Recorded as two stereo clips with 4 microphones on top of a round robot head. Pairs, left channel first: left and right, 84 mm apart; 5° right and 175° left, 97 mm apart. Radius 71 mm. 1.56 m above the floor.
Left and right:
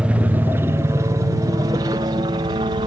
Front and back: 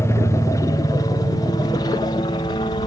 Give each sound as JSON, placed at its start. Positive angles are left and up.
{"t": 0.0, "sound": "a helicopter", "azimuth_deg": -25}